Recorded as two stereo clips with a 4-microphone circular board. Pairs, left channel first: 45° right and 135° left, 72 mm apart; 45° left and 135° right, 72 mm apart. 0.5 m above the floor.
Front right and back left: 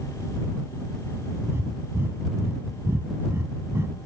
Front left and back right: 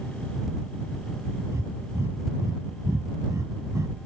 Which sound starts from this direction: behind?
Breathing, at 1.5 s.